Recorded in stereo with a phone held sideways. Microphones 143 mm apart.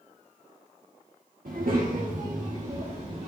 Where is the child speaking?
75° right (ahead or behind), 1.4 m; by 3.3 s 40° right (ahead or behind), 2.0 m.